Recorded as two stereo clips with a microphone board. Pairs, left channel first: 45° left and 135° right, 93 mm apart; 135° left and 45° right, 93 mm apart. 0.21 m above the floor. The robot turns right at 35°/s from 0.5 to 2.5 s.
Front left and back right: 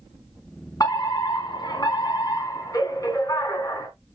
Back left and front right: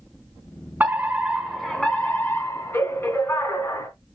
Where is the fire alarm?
20° left, 3 m; by 3.9 s 80° left, 3 m.